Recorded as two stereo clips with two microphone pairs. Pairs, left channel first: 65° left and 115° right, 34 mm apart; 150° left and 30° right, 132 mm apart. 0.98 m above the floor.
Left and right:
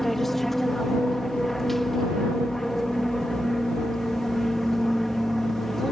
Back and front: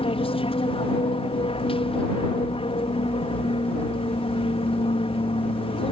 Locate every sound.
0.0 s an aircraft: 150° left